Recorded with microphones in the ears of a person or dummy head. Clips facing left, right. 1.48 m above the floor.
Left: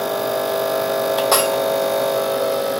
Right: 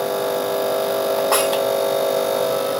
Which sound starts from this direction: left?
Breaking glass, at 1.3 s.